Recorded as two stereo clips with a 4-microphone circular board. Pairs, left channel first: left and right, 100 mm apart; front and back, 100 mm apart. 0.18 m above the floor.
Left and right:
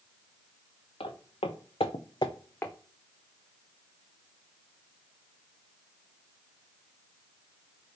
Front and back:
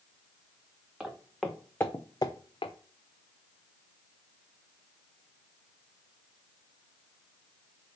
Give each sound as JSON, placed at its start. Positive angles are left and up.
{"t": 1.0, "sound": "footsteps", "azimuth_deg": 100, "distance_m": 1.2}